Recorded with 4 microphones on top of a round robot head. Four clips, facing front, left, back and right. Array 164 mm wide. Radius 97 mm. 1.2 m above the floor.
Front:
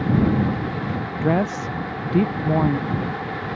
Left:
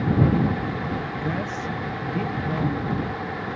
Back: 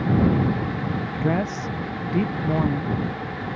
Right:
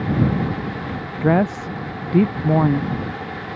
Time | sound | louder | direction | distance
1.2 | a woman speaking | right 9 dB, front 4 dB | 70° right | ?